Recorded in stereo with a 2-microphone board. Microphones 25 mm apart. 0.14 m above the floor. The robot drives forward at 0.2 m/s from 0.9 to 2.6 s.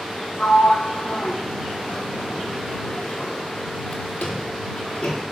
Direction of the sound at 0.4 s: 75° left (ahead or behind).